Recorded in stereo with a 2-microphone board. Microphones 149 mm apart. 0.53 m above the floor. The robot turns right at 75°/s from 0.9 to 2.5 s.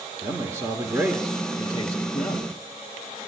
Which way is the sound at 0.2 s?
25° right.